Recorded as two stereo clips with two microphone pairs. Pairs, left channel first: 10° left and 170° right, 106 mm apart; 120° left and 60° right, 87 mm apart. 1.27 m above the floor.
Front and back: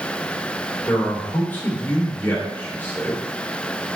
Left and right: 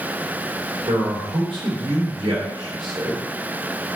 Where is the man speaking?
60° right, 2.5 m.